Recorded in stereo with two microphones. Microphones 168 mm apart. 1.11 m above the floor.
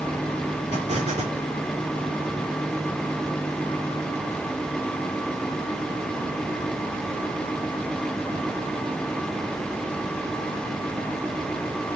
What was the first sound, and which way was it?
An explosion, 45° right (ahead or behind).